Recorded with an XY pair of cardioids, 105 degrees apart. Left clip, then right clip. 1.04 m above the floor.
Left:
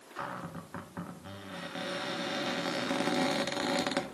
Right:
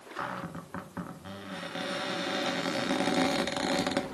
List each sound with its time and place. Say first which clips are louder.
0.2 s a cupboard door: right 3 dB; 20° right, 1.8 m